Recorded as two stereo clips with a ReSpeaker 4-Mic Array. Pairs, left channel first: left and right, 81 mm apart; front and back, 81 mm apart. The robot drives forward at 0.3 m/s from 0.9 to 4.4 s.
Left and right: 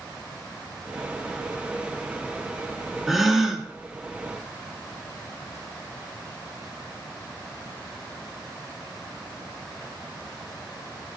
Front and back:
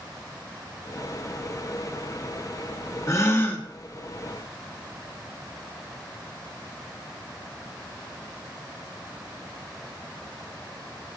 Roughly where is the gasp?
Ahead.